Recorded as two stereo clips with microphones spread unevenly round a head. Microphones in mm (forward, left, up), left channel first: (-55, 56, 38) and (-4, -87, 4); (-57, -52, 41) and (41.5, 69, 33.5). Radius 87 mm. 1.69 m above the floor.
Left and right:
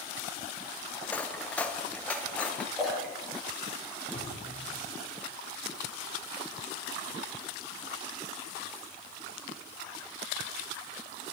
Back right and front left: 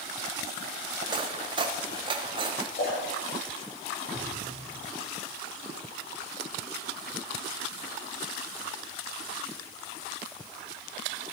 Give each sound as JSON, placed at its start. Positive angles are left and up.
{"t": 1.0, "sound": "cutlery clinking", "azimuth_deg": 75, "distance_m": 0.8}
{"t": 2.8, "sound": "a splash", "azimuth_deg": -160, "distance_m": 5.0}
{"t": 4.1, "sound": "dripping", "azimuth_deg": 130, "distance_m": 1.9}